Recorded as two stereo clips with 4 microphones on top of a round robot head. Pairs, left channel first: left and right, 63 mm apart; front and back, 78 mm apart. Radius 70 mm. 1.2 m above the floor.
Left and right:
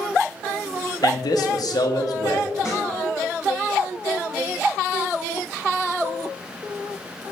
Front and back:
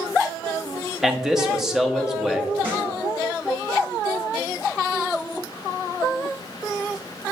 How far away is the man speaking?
About 0.9 m.